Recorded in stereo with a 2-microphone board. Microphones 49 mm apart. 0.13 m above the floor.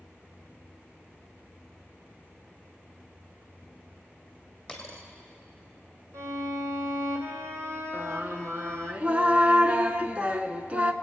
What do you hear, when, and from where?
4.7 s a dropped coin: 15° left (ahead or behind), 2 m
6.1 s a violin: 70° right (ahead or behind), 1.6 m
7.9 s singing: 30° right (ahead or behind), 0.6 m